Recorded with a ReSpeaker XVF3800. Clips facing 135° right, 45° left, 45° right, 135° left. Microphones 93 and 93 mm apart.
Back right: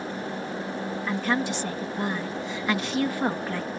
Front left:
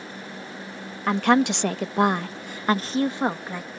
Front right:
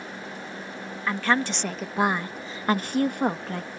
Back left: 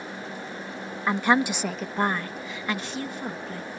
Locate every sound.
1.1 s a woman speaking: 65° left; by 3.7 s 35° right